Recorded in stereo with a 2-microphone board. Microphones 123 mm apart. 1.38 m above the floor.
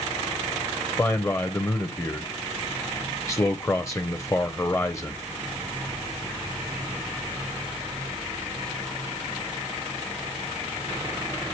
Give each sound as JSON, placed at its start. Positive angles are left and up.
{"t": 1.0, "sound": "a man speaking", "side_deg": 25, "distance_m": 0.7}